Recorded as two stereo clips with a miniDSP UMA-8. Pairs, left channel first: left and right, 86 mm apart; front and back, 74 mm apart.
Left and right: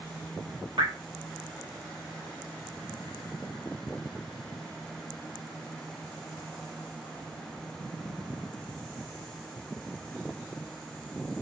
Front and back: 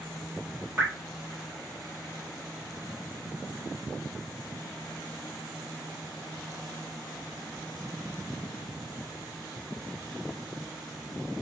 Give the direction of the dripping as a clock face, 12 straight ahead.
4 o'clock.